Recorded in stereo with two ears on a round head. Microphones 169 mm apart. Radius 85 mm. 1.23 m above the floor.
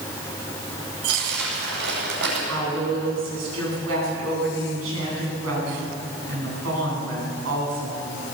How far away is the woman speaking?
About 10 m.